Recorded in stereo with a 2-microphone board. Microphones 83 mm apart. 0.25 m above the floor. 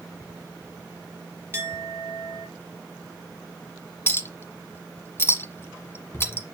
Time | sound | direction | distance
1.5 | a clink | 35° right (ahead or behind) | 2.5 m
4.1 | a clink | 30° left (ahead or behind) | 1.2 m